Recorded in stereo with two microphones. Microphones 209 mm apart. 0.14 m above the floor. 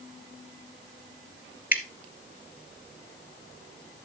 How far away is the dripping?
About 1.7 m.